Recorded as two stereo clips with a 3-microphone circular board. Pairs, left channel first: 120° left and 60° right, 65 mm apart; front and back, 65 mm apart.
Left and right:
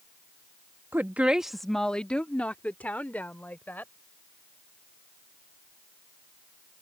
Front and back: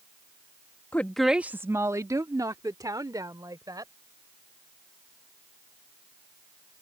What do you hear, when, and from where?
0.9 s a woman speaking: 40° right; by 3.9 s straight behind